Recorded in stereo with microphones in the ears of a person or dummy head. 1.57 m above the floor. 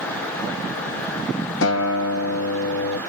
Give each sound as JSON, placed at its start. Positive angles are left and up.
{"t": 1.6, "sound": "a guitar", "side_deg": 75, "distance_m": 0.8}